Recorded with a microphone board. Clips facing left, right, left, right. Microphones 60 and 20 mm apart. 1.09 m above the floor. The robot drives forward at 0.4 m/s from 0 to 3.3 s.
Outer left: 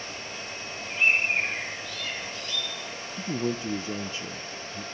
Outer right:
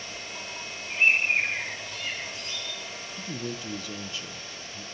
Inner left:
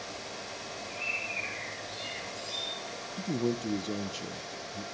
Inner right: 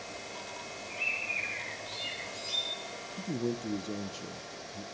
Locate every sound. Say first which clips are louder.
0.9 s a bird: outer right 1 dB, inner right 2 dB; 20° right (ahead or behind), 8.5 m
3.2 s a man speaking: outer left 7 dB, inner left 3 dB; 30° left (ahead or behind), 0.7 m; by 4.8 s 25° left (ahead or behind), 0.7 m